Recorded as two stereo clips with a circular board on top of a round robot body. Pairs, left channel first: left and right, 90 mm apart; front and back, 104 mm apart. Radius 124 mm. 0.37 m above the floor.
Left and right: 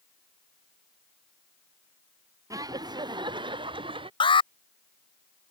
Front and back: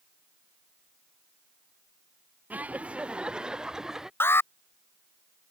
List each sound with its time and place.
2.5 s laughter: 110° right; by 4.1 s 95° right
4.2 s an alarm: 70° left